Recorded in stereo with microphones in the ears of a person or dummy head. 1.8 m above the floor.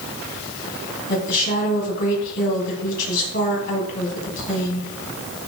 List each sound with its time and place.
1.1 s a woman speaking: 55° left (ahead or behind), 3 m